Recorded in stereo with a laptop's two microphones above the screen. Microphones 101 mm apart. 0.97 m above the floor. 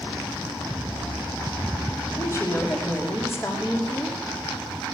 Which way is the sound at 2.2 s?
30° left (ahead or behind).